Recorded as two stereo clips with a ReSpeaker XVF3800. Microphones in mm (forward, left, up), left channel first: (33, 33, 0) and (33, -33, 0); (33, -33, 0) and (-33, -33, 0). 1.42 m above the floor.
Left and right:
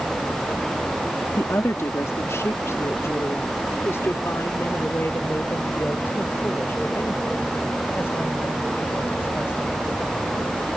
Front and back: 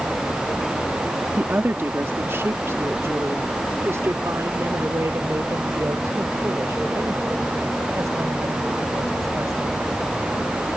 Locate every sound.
1.4 s a woman speaking: 125° left; by 9.8 s 145° left